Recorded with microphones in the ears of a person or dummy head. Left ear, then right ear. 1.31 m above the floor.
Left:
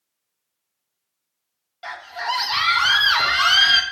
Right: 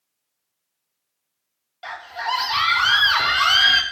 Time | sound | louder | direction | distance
1.8 | a scream | even | 5° left (ahead or behind) | 1.4 m